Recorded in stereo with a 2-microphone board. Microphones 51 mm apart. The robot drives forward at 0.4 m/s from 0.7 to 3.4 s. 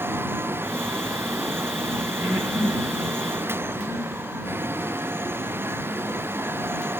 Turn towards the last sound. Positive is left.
turn(degrees=-40)  # may be behind; listen again after turning